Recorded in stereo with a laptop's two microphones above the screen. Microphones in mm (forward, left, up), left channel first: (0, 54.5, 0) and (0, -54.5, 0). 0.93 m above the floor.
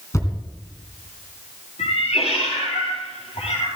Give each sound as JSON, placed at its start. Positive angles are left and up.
{"t": 0.1, "sound": "a thud", "side_deg": 30, "distance_m": 2.5}
{"t": 1.8, "sound": "a cat meowing", "side_deg": 70, "distance_m": 6.0}